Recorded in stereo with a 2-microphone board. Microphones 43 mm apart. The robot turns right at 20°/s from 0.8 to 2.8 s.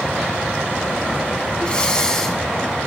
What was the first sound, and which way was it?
Breathing, 25° left (ahead or behind).